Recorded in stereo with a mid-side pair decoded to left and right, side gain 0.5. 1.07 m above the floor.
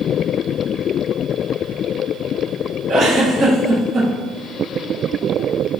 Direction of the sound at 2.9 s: 50° right.